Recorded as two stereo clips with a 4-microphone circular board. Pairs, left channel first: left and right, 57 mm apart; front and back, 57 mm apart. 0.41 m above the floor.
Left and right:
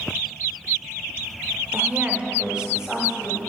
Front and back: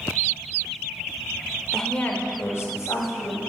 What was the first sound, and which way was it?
A woman speaking, 75° right.